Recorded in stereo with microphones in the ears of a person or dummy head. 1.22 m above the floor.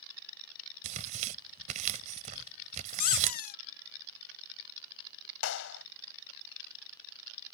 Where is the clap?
75° left (ahead or behind).